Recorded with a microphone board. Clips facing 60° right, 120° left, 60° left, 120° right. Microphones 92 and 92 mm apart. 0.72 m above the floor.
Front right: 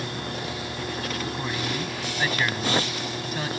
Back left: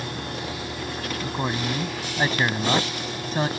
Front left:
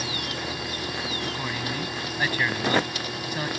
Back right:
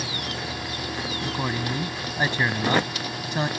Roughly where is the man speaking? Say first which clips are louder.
Back left 3 dB, back right 3 dB; behind.